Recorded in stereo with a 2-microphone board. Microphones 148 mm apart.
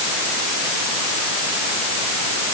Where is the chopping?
I don't hear chopping.